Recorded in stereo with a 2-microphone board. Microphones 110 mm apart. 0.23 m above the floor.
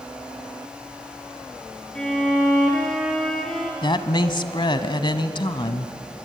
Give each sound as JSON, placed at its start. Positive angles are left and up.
{"t": 1.9, "sound": "a violin", "side_deg": 5, "distance_m": 3.5}
{"t": 3.8, "sound": "a woman speaking", "side_deg": 45, "distance_m": 1.3}